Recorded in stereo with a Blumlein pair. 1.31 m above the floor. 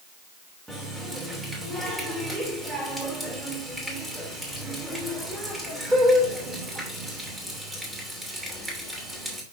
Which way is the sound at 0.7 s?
10° right.